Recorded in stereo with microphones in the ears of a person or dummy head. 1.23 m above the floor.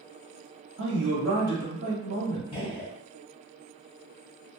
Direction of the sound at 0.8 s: 60° right (ahead or behind).